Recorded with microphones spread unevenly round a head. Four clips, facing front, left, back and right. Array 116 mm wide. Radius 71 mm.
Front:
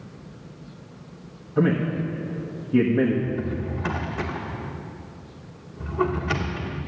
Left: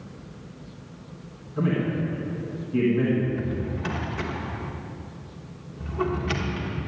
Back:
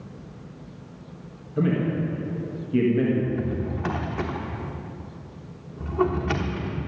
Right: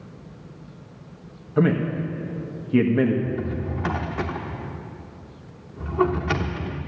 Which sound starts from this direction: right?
A man speaking, at 1.6 s.